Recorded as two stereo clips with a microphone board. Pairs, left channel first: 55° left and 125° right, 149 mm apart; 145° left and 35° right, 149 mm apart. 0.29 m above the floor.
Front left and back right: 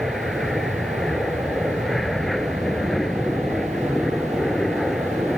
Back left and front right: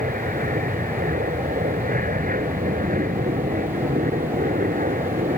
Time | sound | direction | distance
0.0 | an aircraft | 35° right | ?